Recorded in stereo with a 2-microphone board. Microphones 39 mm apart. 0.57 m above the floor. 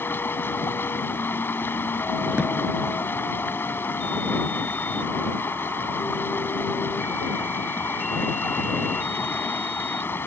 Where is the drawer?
35° right (ahead or behind).